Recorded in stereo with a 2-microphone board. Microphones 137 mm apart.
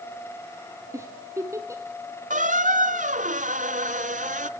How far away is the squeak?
About 0.7 m.